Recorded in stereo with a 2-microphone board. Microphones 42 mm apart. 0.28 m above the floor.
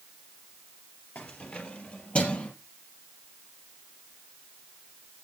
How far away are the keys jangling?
About 4.5 m.